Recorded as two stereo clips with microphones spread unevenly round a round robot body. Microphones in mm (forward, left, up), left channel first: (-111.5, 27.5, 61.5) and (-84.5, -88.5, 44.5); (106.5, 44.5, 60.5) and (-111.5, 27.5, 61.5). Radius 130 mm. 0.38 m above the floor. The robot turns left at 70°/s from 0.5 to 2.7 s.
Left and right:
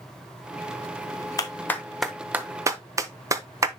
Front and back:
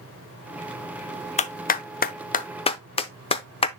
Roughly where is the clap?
Ahead left.